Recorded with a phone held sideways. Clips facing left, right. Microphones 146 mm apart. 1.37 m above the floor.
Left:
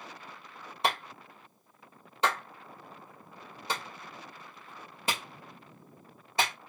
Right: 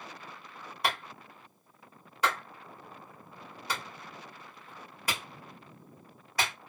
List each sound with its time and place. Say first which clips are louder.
0.8 s a clap: left 2 dB; 25° left (ahead or behind), 1.9 m